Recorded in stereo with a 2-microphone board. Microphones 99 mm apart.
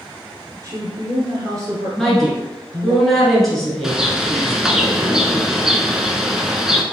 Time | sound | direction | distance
0.6 | a woman speaking | 35° right (ahead or behind) | 1.4 m
2.0 | a woman speaking | centre (ahead or behind) | 1.3 m
3.8 | a bird | 5° right (ahead or behind) | 0.6 m